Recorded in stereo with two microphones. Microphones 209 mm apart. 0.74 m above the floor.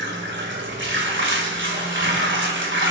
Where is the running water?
65° right (ahead or behind), 2.5 m.